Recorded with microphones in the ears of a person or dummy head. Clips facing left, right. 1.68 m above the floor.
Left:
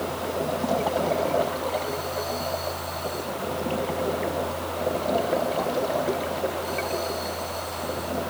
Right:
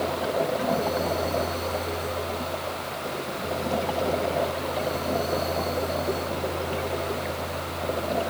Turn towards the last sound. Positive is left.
No sound to turn to.